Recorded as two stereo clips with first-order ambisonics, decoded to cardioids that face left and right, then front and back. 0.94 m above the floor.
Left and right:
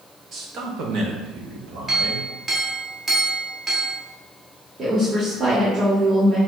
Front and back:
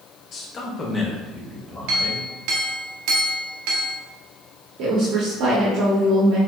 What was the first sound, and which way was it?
A man speaking, 40° right.